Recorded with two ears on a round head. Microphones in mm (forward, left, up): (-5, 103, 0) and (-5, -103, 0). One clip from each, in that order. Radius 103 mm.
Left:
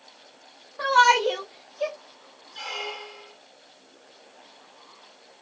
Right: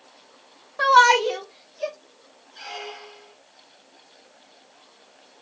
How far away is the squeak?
About 1.5 m.